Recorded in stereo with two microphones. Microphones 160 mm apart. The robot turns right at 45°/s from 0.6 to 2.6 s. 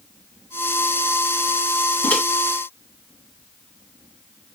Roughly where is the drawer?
No drawer in this recording.